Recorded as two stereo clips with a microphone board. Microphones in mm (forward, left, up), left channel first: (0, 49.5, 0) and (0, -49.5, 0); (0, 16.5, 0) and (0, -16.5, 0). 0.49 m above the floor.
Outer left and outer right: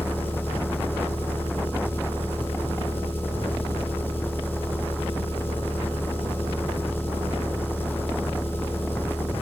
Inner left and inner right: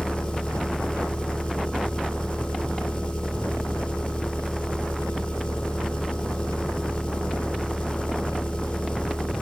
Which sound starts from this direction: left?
An engine running, at 0.0 s.